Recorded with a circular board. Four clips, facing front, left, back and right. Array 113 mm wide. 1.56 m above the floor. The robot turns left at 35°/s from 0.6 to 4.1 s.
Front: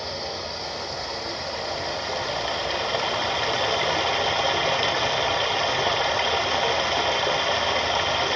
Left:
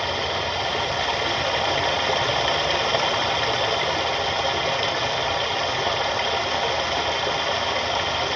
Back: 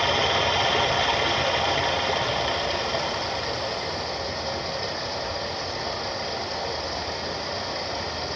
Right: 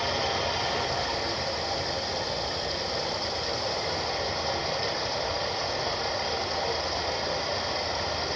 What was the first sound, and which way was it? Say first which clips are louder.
Running water: left 3 dB, back 9 dB; 160° left.